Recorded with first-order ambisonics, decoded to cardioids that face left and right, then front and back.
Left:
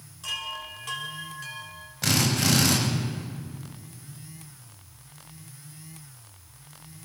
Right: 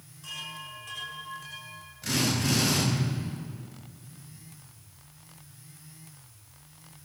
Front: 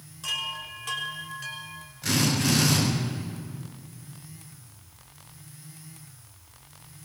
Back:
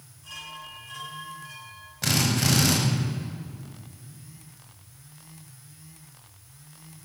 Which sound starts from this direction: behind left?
A drill, at 2.0 s.